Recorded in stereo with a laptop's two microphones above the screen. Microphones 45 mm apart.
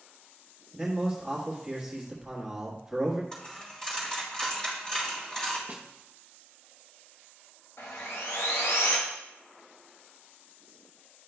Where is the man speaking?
10° right (ahead or behind), 1.3 m.